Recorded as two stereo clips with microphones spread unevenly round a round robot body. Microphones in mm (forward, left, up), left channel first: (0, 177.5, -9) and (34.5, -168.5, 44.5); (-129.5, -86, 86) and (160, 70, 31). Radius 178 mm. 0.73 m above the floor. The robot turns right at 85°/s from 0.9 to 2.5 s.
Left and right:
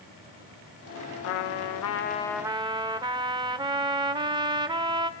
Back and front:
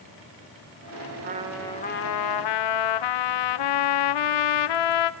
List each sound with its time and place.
1.2 s a trumpet: 95° left, 0.7 m; by 5.1 s 160° right, 0.7 m